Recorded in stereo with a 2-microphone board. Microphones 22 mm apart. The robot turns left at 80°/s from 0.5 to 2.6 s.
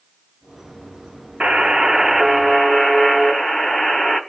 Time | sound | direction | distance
1.4 | a buzzer | 115° right | 2.5 m